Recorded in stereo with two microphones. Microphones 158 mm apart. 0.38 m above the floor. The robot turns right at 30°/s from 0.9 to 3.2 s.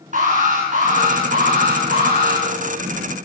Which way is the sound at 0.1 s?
120° right.